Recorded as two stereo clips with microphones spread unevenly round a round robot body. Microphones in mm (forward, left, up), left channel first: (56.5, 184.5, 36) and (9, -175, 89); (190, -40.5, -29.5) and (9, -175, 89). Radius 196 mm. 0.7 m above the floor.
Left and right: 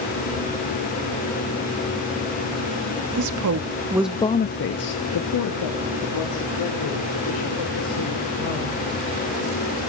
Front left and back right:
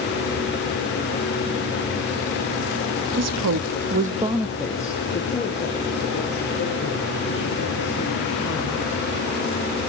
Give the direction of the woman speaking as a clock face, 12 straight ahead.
4 o'clock.